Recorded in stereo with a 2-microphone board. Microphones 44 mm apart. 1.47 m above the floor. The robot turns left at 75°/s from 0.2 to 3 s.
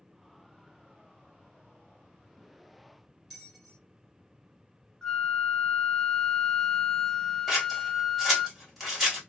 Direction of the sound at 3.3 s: 10° left (ahead or behind).